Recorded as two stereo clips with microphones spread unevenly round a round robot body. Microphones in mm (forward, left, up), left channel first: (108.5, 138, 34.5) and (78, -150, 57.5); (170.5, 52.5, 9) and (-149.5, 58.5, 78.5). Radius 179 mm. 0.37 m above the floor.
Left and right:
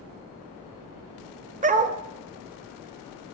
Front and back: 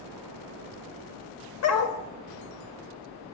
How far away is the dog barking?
About 0.5 m.